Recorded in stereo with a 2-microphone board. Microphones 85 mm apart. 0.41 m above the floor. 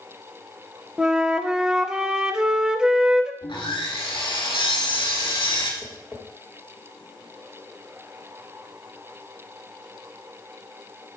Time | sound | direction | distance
1.0 | a flute | 10° right (ahead or behind) | 0.6 m
3.4 | sawing | 75° left (ahead or behind) | 1.7 m
5.8 | tapping | 15° left (ahead or behind) | 1.6 m